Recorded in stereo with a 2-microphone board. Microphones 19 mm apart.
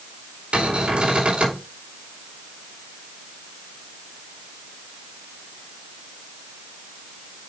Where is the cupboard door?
80° right, 4.5 m.